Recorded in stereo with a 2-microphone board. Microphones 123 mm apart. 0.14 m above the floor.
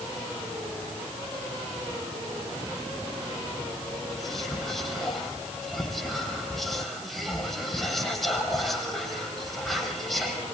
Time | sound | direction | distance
4.1 | whispering | centre (ahead or behind) | 6.5 m